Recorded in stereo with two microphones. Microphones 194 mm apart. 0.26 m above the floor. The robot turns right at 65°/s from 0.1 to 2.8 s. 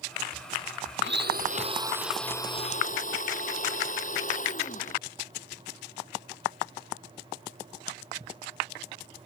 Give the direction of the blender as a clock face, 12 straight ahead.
2 o'clock.